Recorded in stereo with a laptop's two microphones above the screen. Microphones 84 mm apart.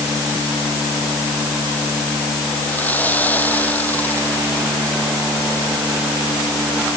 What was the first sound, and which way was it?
Sawing, 20° left (ahead or behind).